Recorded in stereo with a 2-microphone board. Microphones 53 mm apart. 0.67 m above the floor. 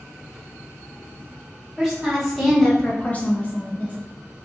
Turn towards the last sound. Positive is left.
turn(degrees=30)  # may be behind; listen again after turning